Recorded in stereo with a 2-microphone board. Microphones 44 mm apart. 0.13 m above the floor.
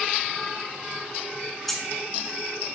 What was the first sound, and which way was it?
Keys jangling, 5° left (ahead or behind).